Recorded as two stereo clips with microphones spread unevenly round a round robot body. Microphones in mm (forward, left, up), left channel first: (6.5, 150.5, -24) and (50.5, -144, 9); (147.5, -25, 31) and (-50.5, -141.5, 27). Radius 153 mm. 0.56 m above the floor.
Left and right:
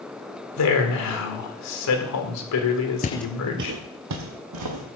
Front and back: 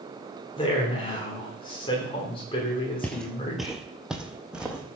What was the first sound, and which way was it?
A man speaking, 100° left.